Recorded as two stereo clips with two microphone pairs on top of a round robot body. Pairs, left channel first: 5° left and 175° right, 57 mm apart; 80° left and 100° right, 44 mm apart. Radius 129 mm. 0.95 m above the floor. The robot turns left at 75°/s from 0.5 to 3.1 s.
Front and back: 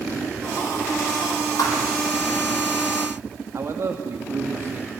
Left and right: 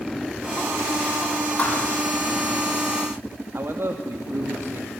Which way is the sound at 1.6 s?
25° left.